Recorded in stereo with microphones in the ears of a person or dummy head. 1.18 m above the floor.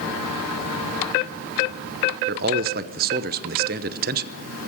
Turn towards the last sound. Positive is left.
turn(degrees=-45)  # may be behind; listen again after turning